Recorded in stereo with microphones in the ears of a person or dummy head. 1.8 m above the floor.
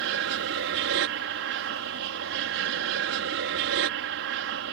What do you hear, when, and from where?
0.0 s an aircraft: 65° right (ahead or behind)